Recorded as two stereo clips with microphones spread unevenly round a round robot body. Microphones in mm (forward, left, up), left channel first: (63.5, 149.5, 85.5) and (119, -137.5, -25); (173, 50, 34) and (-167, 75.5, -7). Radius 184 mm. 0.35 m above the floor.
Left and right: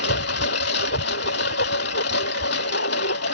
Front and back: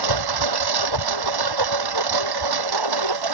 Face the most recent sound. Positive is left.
turn(degrees=160)